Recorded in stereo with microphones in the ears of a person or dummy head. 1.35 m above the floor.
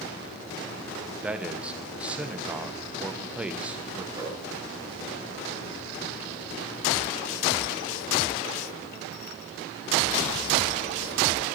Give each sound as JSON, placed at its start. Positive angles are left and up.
{"t": 1.2, "sound": "a man speaking", "side_deg": -10, "distance_m": 1.1}
{"t": 4.2, "sound": "a whoosh", "side_deg": -15, "distance_m": 4.0}